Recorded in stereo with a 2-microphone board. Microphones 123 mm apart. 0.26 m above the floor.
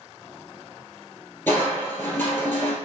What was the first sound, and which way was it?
Crushing, 20° left (ahead or behind).